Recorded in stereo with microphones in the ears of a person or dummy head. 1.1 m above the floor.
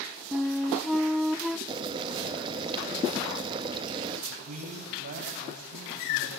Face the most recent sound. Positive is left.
turn(degrees=-45)  # may be behind; listen again after turning